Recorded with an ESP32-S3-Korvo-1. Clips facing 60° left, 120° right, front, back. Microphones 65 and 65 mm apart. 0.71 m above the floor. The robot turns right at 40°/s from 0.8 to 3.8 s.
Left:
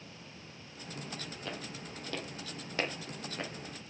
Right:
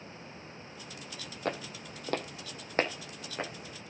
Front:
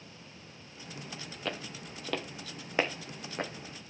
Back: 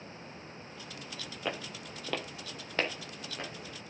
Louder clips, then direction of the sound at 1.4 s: Right 9 dB, back 1 dB; 105° right.